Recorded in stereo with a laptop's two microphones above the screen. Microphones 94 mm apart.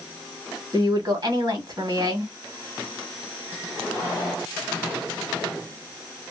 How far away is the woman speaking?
About 1.5 m.